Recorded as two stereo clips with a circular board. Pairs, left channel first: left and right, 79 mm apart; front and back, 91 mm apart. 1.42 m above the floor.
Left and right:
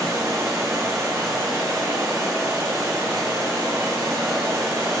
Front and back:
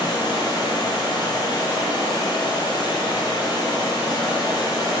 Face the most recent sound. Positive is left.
turn(degrees=-40)